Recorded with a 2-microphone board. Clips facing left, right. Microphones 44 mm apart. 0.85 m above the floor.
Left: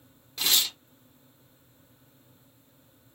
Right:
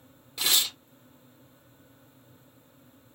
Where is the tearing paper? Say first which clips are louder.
Even; 5° right (ahead or behind), 1.0 m.